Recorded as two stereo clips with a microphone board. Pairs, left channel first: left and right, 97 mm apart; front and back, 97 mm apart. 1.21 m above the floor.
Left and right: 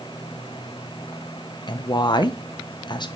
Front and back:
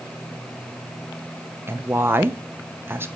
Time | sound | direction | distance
1.7 | a woman speaking | 115° left | 1.0 m